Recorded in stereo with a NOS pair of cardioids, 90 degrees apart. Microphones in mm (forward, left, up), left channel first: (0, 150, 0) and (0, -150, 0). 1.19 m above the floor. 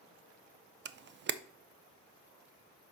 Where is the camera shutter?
40° right, 0.5 m.